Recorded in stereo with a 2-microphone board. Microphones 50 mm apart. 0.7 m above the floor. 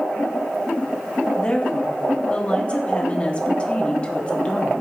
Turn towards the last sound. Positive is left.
turn(degrees=25)  # may be behind; listen again after turning